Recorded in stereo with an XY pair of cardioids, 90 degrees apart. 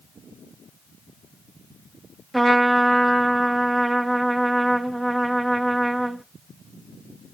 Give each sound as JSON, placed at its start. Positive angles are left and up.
{"t": 2.3, "sound": "a trumpet", "azimuth_deg": -10, "distance_m": 0.9}